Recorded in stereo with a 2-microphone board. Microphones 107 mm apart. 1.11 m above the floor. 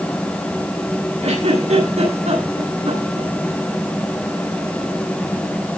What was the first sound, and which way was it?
A giggle, 85° right.